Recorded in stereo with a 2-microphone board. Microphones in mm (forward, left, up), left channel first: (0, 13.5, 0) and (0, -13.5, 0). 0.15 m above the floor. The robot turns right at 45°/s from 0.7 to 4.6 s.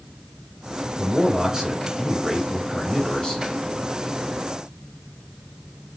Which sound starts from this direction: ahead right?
A man speaking, at 1.0 s.